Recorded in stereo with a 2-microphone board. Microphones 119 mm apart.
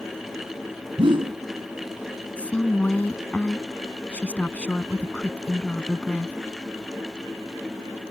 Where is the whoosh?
50° right (ahead or behind).